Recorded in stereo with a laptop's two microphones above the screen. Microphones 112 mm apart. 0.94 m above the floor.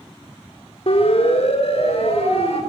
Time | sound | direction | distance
0.9 | a siren | 60° left (ahead or behind) | 4.5 m